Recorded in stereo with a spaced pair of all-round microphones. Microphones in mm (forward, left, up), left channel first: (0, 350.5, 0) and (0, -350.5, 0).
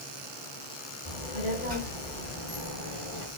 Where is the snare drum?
I don't hear a snare drum.